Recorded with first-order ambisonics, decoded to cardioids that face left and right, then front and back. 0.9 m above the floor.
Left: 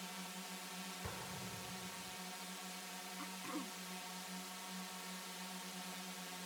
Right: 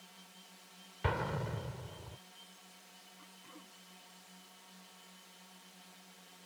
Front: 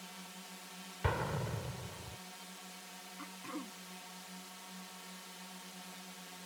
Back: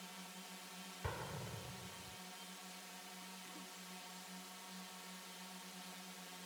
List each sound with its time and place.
0.0 s a drone: 70° left
1.0 s an explosion: 55° right
3.2 s throat clearing: 35° left